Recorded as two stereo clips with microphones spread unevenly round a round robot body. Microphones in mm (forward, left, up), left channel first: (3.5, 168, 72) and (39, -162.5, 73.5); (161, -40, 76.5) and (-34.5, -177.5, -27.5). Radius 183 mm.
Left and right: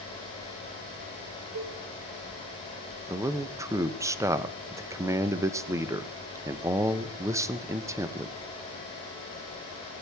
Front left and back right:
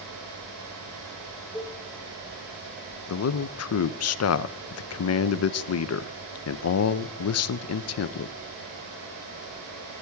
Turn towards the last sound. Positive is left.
turn(degrees=-5)